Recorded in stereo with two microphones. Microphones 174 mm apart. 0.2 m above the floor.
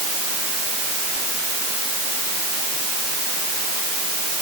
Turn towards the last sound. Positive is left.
No sound to turn to.